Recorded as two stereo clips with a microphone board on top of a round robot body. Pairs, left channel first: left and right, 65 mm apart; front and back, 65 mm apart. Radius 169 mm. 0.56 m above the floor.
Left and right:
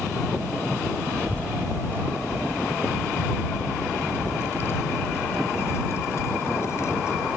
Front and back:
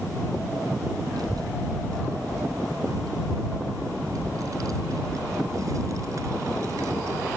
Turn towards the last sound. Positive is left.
turn(degrees=135)